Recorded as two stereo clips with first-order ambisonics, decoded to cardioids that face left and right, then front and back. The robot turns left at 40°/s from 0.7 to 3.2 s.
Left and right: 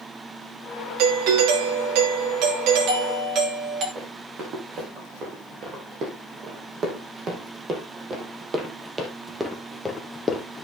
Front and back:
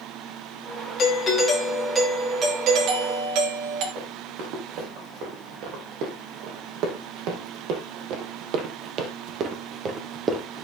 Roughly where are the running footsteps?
Behind right.